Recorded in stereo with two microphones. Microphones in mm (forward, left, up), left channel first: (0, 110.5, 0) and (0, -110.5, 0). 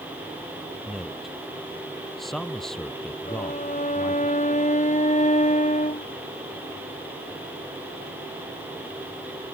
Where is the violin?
35° left (ahead or behind).